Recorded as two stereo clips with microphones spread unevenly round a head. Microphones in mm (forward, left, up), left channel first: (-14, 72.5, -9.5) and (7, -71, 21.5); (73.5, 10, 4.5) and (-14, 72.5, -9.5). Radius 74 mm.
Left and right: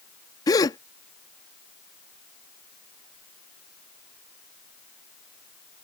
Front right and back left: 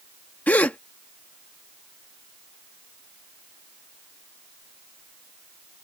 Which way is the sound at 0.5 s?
25° left.